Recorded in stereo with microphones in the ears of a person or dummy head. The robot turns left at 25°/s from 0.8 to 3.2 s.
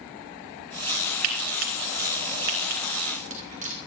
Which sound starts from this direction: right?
Frying, at 1.2 s.